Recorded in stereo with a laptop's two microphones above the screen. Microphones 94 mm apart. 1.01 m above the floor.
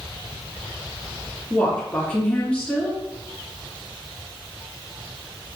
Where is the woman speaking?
15° left (ahead or behind), 2 m.